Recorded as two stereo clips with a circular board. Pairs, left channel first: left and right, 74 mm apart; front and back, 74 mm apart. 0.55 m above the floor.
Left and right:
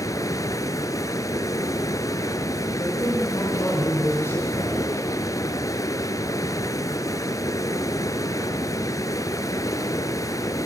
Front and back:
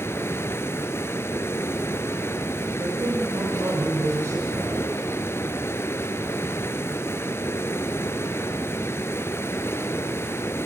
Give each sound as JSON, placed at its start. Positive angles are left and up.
{"t": 0.0, "sound": "running water", "azimuth_deg": 55, "distance_m": 1.1}
{"t": 2.8, "sound": "a man speaking", "azimuth_deg": 140, "distance_m": 10.0}